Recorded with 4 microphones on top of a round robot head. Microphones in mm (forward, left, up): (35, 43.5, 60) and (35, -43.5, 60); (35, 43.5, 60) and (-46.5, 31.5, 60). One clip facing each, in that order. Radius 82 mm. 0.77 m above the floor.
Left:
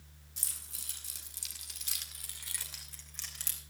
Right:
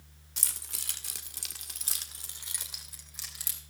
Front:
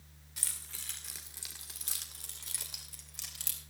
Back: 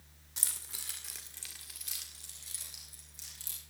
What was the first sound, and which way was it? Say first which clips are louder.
Keys jangling: right 8 dB, back 1 dB; 105° right.